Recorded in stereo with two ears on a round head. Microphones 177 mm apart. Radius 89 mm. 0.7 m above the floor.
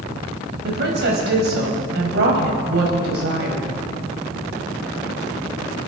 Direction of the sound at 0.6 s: 60° right (ahead or behind).